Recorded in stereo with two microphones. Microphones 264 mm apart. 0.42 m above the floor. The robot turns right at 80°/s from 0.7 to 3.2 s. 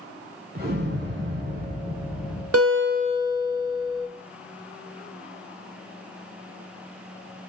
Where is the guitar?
70° right, 0.7 m; by 4.1 s 15° right, 0.7 m.